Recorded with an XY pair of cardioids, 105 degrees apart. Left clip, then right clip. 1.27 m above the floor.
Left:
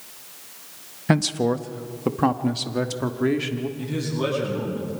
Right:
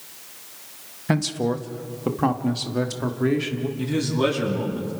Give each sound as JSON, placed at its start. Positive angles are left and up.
{"t": 1.1, "sound": "a man speaking", "azimuth_deg": 25, "distance_m": 1.1}
{"t": 3.8, "sound": "a man speaking", "azimuth_deg": -25, "distance_m": 10.0}